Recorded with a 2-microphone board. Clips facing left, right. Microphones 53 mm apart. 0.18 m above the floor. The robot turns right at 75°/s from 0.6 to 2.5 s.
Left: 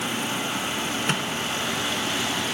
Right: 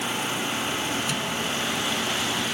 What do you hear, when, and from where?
1.1 s a microwave: 50° left (ahead or behind), 1.3 m; by 1.3 s 40° left (ahead or behind), 1.3 m